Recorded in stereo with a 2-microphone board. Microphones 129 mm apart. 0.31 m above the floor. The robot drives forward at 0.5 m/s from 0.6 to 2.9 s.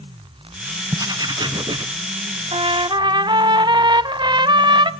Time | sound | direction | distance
0.9 | writing | 25° right (ahead or behind) | 0.7 m
2.5 | a trumpet | 50° right (ahead or behind) | 0.5 m